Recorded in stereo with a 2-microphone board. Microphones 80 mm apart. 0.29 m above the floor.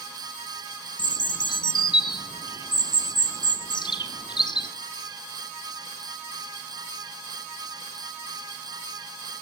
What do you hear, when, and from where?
1.0 s a bird: 75° left (ahead or behind), 1.3 m